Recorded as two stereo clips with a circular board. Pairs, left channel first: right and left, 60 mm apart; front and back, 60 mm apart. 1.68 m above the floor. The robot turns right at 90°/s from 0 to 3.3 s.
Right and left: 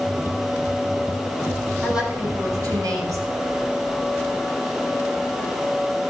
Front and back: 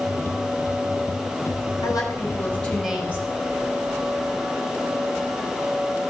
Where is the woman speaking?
Straight ahead, 4.5 m; by 3.2 s 130° left, 4.5 m.